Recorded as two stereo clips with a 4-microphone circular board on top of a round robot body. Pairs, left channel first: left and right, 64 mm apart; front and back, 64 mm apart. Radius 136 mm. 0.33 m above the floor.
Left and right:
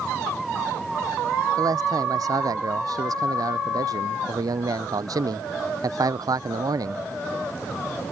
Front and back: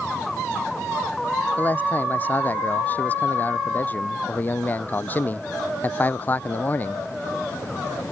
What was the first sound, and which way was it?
A man speaking, 65° right.